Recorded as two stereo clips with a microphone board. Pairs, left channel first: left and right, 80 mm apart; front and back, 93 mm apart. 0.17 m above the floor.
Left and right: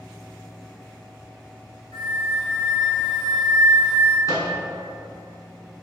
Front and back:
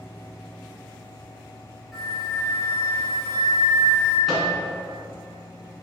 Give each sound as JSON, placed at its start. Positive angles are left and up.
{"t": 1.9, "sound": "a flute", "azimuth_deg": 90, "distance_m": 1.6}
{"t": 4.3, "sound": "a microwave", "azimuth_deg": 90, "distance_m": 1.2}